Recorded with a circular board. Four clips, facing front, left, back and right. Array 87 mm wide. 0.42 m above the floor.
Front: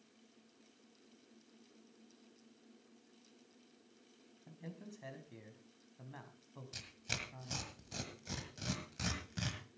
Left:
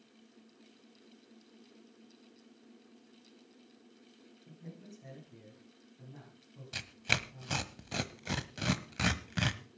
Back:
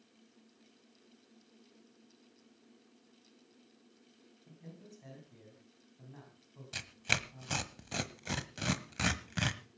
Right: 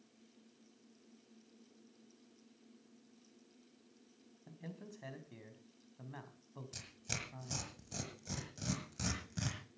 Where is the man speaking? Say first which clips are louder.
Right 1 dB, front 2 dB; 60° right, 4 m.